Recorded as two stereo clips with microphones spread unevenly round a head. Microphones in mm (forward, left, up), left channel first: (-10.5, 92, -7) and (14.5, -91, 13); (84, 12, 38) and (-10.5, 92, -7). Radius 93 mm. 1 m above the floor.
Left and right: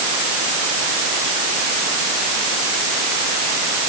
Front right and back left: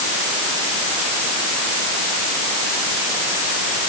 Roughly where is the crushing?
No crushing in this recording.